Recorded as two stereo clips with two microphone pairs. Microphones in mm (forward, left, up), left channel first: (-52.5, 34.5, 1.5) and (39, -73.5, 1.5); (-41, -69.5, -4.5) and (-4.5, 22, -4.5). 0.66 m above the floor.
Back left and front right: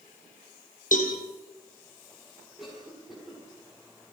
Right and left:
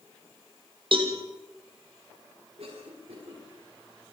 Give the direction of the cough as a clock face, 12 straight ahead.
11 o'clock.